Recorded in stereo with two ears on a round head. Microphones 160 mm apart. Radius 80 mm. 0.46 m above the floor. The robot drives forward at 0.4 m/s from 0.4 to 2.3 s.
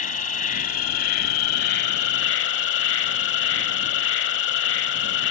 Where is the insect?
45° left (ahead or behind); by 5.3 s 70° left (ahead or behind).